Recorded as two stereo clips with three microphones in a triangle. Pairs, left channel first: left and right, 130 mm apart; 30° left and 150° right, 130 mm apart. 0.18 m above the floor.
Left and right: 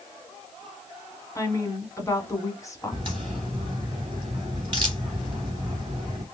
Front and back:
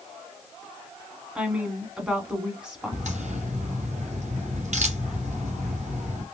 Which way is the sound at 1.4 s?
130° left.